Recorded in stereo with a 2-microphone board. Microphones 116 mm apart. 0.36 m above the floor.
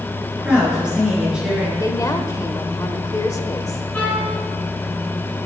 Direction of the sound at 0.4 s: 10° right (ahead or behind).